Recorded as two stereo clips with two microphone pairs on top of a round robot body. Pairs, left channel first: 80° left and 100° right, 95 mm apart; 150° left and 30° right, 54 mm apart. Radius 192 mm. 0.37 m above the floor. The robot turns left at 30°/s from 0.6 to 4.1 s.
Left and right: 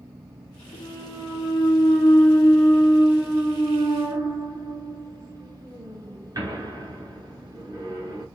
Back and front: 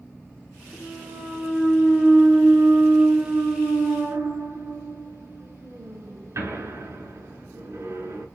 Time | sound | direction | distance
0.7 | a clunk | 50° left | 5.5 m